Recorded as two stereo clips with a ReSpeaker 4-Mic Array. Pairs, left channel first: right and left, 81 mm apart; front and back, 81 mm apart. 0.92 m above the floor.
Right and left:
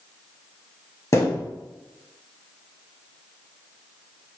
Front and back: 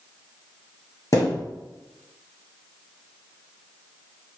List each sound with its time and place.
1.1 s a thud: 45° right, 1.8 m